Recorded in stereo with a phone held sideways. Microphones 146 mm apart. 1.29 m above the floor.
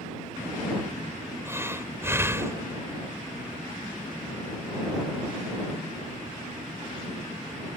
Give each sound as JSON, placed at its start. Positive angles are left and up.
{"t": 1.4, "sound": "breathing", "side_deg": -15}